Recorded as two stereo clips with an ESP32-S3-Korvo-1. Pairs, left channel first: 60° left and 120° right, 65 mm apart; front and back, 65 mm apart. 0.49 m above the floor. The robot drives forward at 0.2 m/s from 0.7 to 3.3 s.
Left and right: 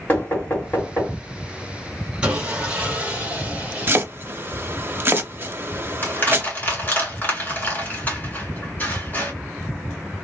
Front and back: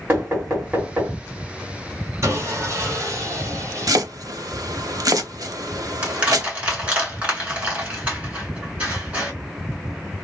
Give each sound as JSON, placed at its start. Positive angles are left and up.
{"t": 0.1, "sound": "knocking", "azimuth_deg": 120, "distance_m": 2.5}
{"t": 2.2, "sound": "sawing", "azimuth_deg": 170, "distance_m": 1.8}
{"t": 3.9, "sound": "chopping", "azimuth_deg": -175, "distance_m": 0.6}
{"t": 6.0, "sound": "crushing", "azimuth_deg": 115, "distance_m": 2.0}